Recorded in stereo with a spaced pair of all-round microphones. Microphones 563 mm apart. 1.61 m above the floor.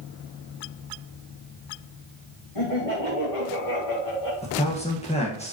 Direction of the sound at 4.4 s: 10° left (ahead or behind).